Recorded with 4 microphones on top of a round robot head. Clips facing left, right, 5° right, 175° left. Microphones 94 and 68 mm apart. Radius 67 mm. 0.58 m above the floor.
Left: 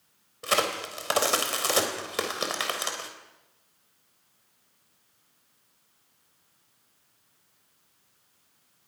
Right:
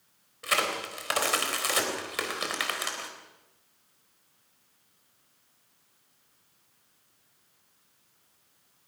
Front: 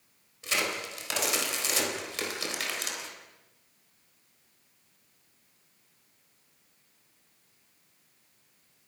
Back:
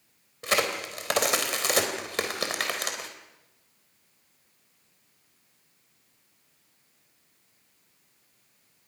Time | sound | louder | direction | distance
0.4 | a crack | left 2 dB, back 5 dB | 145° left | 3.5 m